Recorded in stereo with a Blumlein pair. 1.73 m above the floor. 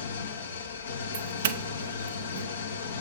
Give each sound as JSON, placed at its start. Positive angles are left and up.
{"t": 0.0, "sound": "an engine running", "azimuth_deg": 70, "distance_m": 1.3}
{"t": 1.1, "sound": "a doorbell", "azimuth_deg": -60, "distance_m": 0.7}